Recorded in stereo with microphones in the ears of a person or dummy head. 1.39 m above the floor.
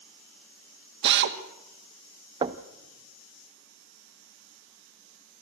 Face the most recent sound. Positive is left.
turn(degrees=-25)  # may be behind; listen again after turning